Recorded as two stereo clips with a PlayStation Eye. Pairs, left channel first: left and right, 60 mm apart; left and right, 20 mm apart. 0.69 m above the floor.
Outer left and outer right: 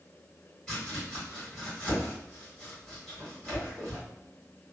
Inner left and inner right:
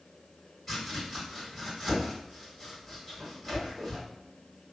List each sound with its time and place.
0.7 s chopping: 15° left (ahead or behind), 1.6 m